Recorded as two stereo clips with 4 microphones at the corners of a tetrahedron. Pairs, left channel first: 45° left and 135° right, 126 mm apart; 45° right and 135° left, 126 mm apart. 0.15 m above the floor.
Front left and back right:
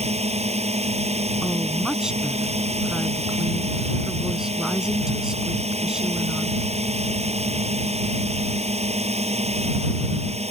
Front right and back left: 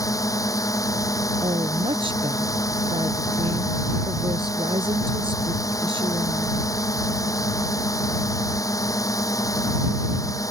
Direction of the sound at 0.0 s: 105° right.